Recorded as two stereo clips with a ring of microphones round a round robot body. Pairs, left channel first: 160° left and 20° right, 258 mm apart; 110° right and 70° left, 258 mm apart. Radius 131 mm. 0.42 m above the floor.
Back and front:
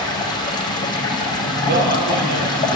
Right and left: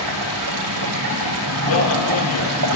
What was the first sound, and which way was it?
Running water, 85° left.